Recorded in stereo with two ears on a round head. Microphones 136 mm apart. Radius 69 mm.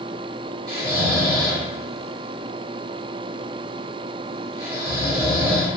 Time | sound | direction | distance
0.7 | snoring | 30° right (ahead or behind) | 1.9 m